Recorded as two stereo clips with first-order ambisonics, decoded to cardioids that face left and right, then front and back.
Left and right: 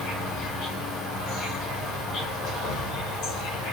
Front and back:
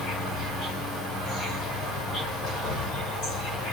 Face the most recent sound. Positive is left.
turn(degrees=60)